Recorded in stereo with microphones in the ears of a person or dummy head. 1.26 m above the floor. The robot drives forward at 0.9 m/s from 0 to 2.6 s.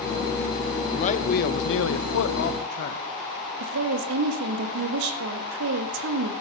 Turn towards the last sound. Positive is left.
turn(degrees=-65)  # may be behind; listen again after turning